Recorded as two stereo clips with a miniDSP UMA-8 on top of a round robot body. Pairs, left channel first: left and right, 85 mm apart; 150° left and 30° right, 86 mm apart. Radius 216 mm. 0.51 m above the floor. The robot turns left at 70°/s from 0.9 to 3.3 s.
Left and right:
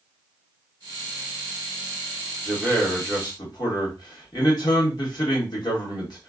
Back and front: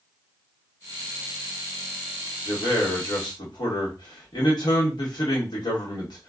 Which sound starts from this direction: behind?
A man speaking, at 2.5 s.